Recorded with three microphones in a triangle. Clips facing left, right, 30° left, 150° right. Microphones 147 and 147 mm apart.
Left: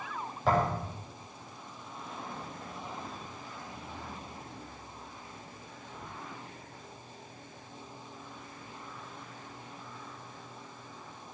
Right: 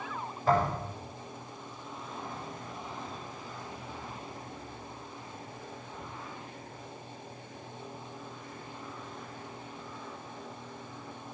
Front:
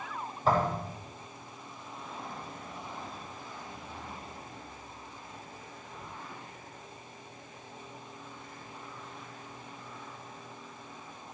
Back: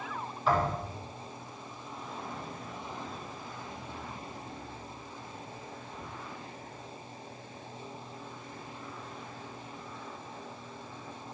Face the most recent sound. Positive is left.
turn(degrees=75)